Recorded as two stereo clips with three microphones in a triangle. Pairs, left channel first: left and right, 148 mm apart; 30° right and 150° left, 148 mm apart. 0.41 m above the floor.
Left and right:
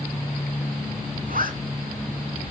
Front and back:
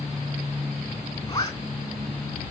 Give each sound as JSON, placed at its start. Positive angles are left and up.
{"t": 1.3, "sound": "a zipper", "azimuth_deg": -90, "distance_m": 3.5}